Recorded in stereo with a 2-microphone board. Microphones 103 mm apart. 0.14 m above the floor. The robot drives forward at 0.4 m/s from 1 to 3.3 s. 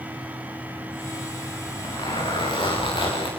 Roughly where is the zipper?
Left.